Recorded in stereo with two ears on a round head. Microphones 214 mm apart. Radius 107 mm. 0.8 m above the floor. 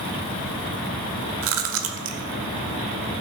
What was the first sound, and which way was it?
Chewing, 60° right (ahead or behind).